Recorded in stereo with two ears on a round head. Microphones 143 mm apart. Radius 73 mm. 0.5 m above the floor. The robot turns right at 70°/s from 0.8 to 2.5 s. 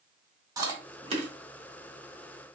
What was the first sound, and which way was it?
Chewing, 25° right (ahead or behind).